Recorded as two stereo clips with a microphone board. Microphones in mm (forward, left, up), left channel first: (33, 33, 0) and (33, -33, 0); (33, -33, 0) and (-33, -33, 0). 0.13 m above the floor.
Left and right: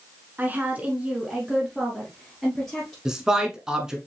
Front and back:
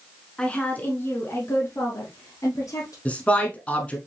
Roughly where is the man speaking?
Ahead right.